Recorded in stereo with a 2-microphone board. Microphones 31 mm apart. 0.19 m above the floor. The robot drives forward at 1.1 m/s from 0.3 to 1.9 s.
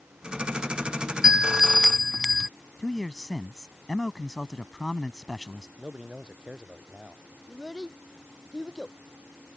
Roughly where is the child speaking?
Centre.